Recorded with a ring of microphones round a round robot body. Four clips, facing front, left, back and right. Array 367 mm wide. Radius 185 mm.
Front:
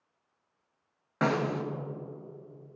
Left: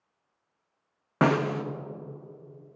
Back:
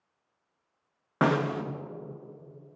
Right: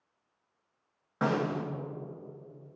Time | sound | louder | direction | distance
1.2 | a snare drum | left 5 dB, back 2 dB | 110° left | 0.7 m